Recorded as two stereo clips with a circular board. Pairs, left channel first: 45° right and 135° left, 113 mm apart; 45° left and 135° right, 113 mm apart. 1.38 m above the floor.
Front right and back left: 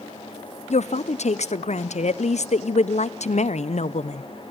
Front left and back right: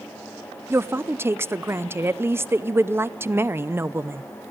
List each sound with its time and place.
0.7 s a woman speaking: 65° right, 0.5 m